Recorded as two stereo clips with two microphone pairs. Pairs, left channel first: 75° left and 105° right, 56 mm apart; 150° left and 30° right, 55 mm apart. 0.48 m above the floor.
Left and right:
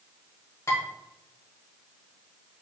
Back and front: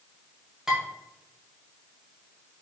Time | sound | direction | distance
0.7 | dishes clattering | 50° left | 1.5 m